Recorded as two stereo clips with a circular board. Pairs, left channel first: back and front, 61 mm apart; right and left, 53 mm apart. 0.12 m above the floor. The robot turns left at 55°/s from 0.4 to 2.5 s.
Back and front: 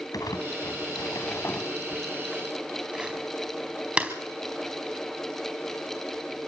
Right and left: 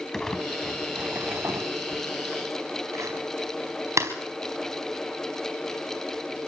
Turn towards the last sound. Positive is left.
turn(degrees=70)